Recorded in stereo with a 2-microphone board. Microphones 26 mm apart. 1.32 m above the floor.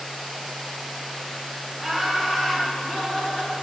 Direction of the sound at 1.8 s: 10° right (ahead or behind).